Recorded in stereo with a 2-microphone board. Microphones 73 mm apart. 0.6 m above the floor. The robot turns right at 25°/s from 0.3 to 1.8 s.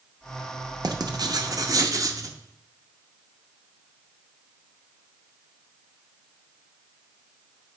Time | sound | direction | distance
0.8 | writing | 65° right (ahead or behind) | 0.6 m